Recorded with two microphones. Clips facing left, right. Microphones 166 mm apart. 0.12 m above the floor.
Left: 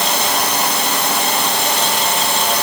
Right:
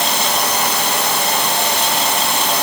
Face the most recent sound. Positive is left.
No sound to turn to.